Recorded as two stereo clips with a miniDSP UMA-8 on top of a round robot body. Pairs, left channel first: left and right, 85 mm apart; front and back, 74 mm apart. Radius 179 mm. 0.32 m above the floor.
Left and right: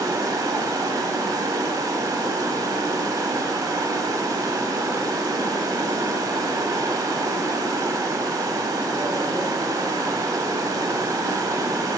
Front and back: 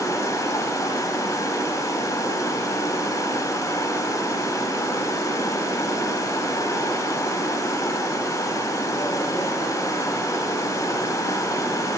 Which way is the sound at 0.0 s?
50° right.